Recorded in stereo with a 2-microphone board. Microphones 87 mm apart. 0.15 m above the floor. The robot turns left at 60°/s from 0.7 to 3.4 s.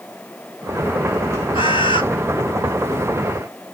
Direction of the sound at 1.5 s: 75° left (ahead or behind).